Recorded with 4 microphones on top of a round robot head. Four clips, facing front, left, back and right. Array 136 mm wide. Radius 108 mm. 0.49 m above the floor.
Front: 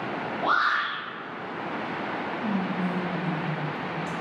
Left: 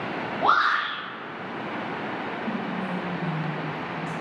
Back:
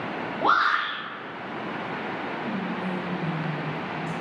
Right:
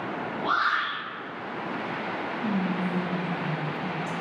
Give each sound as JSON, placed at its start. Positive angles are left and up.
{"t": 0.4, "sound": "a shout", "azimuth_deg": 150, "distance_m": 3.0}
{"t": 2.4, "sound": "whispering", "azimuth_deg": -55, "distance_m": 3.0}